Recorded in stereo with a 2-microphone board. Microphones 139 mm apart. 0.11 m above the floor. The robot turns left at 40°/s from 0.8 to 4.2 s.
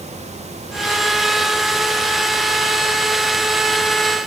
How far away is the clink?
No clink in this recording.